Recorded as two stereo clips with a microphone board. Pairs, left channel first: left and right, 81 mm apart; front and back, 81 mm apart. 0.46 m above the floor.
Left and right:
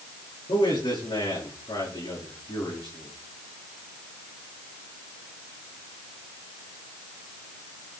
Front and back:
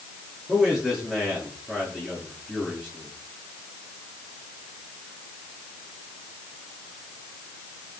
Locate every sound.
0.5 s a man speaking: 100° left, 8.5 m